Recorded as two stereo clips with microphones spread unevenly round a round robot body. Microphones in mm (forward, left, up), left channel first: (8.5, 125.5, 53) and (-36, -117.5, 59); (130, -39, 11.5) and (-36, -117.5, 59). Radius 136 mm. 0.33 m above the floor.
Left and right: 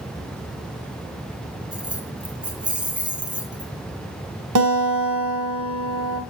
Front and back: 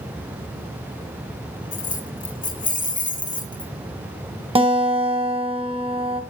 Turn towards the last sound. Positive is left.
turn(degrees=-90)